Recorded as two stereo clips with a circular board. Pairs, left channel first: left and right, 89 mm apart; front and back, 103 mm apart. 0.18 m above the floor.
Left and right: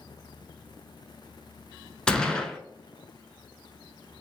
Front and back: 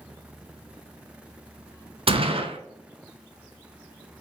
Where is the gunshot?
170° left, 0.6 m.